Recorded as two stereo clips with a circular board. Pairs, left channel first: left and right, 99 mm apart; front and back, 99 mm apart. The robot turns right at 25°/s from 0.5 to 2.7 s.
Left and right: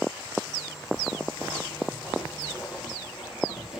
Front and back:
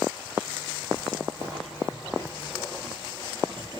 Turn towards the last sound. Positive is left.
turn(degrees=-175)